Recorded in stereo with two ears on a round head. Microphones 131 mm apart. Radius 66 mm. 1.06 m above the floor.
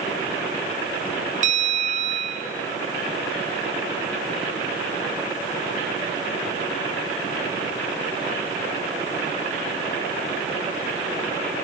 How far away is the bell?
About 1.3 m.